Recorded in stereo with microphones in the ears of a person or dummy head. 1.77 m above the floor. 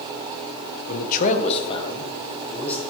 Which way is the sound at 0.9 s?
55° left (ahead or behind).